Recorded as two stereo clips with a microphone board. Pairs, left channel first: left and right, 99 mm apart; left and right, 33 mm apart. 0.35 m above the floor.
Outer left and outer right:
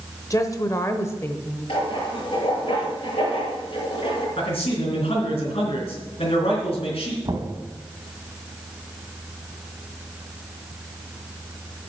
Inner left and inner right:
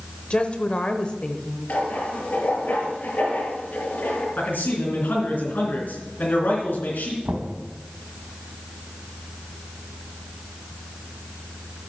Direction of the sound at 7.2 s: 45° right (ahead or behind).